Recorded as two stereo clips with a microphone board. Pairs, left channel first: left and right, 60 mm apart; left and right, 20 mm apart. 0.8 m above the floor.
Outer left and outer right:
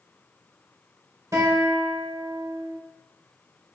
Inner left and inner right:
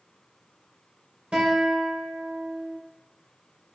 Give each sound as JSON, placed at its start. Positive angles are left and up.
{"t": 1.3, "sound": "a guitar", "side_deg": -70, "distance_m": 1.6}